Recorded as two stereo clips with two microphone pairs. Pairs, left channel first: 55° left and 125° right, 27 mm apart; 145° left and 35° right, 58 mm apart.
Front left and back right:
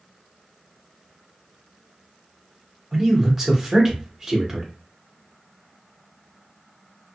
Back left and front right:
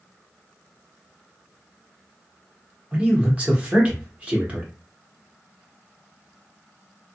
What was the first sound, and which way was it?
A man speaking, 65° right.